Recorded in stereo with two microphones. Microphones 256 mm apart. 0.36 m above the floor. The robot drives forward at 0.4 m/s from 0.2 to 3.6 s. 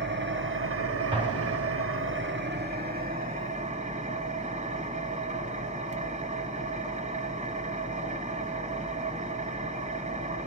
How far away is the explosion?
About 1.8 m.